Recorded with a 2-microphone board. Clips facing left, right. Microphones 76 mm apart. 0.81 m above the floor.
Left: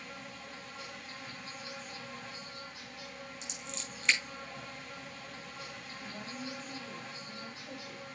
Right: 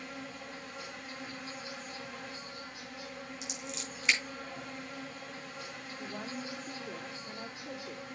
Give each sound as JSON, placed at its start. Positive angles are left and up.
{"t": 0.0, "sound": "an insect", "side_deg": -25, "distance_m": 5.0}
{"t": 3.4, "sound": "scissors", "side_deg": -5, "distance_m": 4.0}
{"t": 6.0, "sound": "a woman speaking", "side_deg": -60, "distance_m": 2.5}